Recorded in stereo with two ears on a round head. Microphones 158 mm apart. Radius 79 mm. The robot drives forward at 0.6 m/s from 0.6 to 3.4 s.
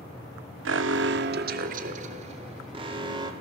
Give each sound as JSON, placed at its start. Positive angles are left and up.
{"t": 0.7, "sound": "an alarm", "side_deg": -75, "distance_m": 0.8}